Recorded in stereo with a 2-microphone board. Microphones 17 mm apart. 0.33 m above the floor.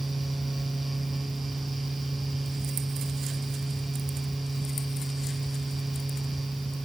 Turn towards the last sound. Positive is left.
No sound to turn to.